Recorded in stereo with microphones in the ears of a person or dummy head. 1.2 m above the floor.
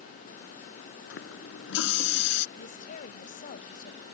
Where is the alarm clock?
No alarm clock in this recording.